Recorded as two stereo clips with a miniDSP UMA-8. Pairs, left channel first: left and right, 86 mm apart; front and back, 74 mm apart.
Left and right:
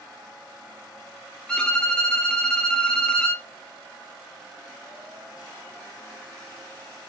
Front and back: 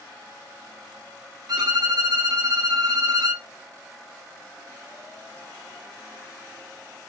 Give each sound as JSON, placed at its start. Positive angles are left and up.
{"t": 1.5, "sound": "a violin", "azimuth_deg": 165, "distance_m": 0.9}